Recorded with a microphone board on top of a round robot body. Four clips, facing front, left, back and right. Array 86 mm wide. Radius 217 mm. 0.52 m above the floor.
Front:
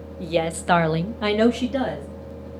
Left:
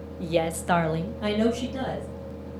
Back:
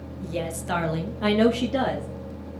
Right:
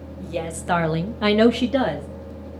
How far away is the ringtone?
No ringtone in this recording.